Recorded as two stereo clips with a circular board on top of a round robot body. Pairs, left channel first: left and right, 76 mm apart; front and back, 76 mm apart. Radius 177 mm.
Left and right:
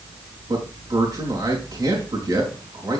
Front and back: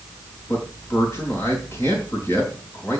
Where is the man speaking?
60° right, 5 m.